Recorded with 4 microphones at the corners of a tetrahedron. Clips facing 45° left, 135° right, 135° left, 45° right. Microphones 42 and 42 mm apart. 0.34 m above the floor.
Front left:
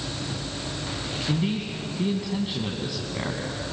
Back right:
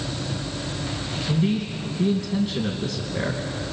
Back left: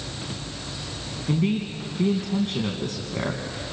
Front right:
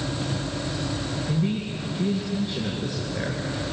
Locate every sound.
1.3 s a man speaking: 115° left, 2.5 m